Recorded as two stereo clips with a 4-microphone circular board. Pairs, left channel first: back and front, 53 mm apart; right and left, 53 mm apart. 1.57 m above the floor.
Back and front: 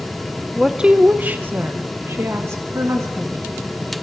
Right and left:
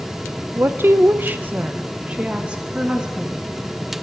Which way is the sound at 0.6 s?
80° left.